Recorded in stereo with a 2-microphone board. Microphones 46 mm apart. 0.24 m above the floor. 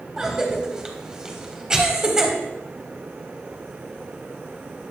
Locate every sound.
0.2 s a cough: 15° right (ahead or behind), 1.1 m